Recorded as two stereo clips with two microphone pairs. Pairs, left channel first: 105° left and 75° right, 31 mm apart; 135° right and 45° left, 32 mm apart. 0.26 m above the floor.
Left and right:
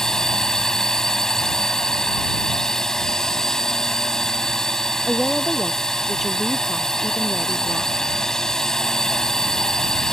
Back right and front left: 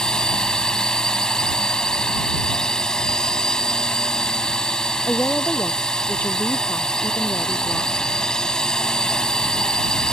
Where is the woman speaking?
165° right.